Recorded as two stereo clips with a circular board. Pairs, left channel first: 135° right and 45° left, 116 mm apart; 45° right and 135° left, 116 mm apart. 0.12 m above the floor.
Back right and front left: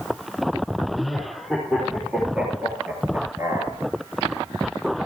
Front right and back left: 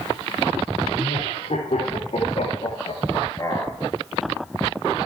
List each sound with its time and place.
0.9 s laughter: 40° right, 4.5 m; by 3.8 s 20° left, 1.4 m